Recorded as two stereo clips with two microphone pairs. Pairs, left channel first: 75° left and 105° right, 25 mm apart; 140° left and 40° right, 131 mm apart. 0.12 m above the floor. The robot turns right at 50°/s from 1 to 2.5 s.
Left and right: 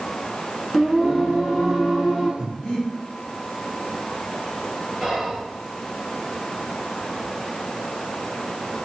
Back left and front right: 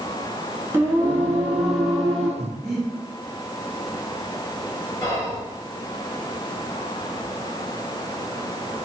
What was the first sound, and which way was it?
Singing, straight ahead.